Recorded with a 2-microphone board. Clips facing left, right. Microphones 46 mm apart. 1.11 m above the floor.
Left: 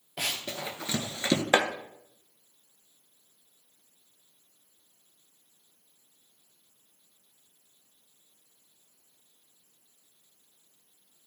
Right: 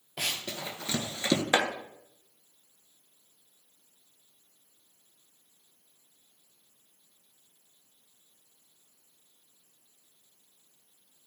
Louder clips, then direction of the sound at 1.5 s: Left 3 dB; 30° left (ahead or behind).